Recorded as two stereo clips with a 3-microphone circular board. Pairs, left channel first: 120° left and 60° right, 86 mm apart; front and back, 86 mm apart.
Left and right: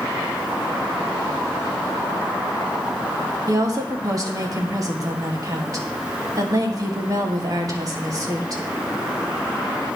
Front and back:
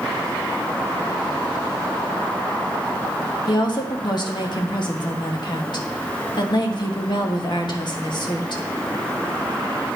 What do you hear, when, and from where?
3.5 s a woman speaking: 15° right, 1.4 m